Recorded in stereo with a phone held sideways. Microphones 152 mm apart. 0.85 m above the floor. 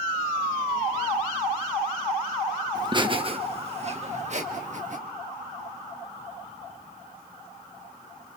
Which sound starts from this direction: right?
Laughter, at 2.8 s.